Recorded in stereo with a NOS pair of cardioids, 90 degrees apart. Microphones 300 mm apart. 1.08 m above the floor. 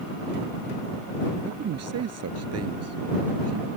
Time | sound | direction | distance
1.4 | a man speaking | 55° right | ?